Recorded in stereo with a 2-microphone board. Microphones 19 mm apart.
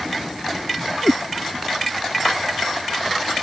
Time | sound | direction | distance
1.0 | a cat meowing | 50° left (ahead or behind) | ?